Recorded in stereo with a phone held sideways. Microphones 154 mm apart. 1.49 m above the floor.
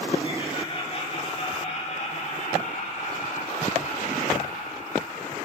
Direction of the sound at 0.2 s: 35° left (ahead or behind).